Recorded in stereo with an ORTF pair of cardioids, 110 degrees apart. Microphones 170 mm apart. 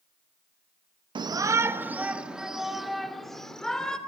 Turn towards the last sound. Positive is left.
turn(degrees=5)